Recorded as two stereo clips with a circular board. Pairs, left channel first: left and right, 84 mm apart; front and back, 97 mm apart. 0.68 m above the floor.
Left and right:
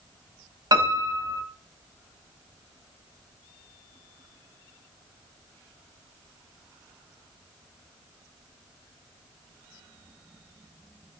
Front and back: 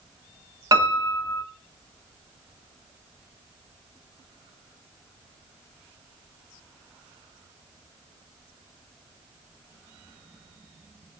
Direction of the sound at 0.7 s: 130° right.